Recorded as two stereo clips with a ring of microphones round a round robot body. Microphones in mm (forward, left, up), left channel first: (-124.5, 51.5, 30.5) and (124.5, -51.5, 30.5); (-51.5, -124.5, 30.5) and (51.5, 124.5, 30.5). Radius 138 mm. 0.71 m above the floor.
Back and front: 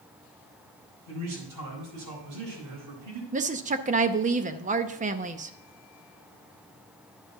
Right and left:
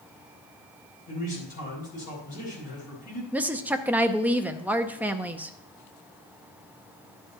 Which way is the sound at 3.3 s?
10° right.